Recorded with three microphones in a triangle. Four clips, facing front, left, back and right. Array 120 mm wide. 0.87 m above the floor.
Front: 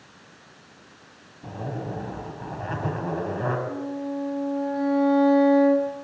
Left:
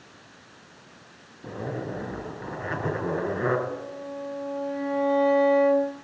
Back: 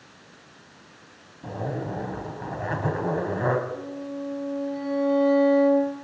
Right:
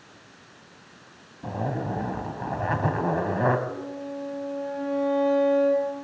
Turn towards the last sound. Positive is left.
turn(degrees=-5)